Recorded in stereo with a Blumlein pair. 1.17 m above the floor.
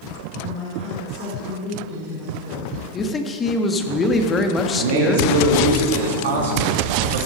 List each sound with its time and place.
0.4 s a woman speaking: 40° left, 4.5 m
2.9 s a man speaking: 20° left, 1.5 m
4.8 s a man speaking: 60° right, 3 m